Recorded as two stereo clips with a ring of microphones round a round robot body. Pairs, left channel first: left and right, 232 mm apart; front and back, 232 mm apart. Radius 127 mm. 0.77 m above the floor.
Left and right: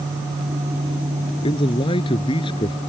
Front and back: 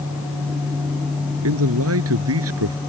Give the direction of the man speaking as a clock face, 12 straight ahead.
7 o'clock.